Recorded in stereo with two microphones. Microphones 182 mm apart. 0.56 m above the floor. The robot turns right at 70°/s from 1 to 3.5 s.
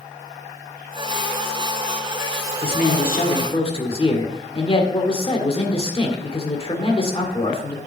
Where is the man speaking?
80° left, 1.7 m; by 7.8 s 140° left, 1.7 m.